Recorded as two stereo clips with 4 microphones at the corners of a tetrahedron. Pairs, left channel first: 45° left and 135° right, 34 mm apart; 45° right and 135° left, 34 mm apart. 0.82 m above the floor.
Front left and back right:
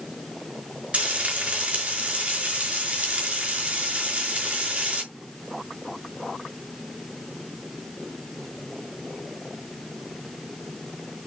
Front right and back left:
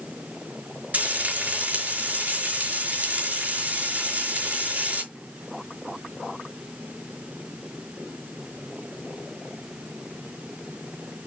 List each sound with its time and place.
0.9 s frying: 170° left, 5.5 m